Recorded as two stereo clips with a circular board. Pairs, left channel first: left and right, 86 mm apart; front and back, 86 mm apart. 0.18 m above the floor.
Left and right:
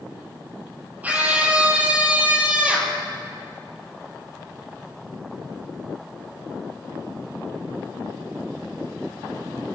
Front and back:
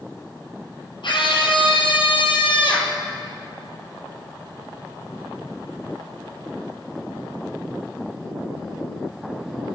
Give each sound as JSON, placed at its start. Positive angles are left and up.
{"t": 1.0, "sound": "a scream", "azimuth_deg": -20, "distance_m": 5.5}